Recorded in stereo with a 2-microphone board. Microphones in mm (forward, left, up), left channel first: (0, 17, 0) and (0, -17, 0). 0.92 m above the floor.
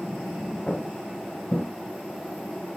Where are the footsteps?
40° left (ahead or behind), 3 m; by 1.7 s 45° left (ahead or behind), 2 m.